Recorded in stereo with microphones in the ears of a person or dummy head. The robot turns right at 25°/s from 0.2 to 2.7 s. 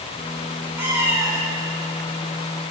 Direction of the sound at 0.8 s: 10° right (ahead or behind).